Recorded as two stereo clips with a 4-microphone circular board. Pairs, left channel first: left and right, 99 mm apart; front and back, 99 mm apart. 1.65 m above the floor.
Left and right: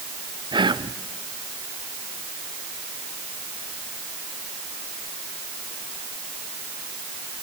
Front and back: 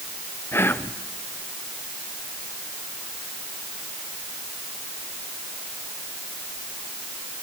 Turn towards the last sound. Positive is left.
turn(degrees=-60)